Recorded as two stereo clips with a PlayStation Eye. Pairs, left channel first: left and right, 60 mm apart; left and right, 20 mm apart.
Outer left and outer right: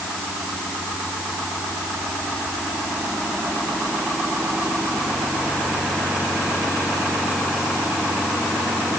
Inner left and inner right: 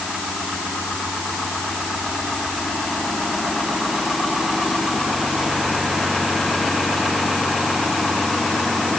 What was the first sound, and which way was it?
Only background noise.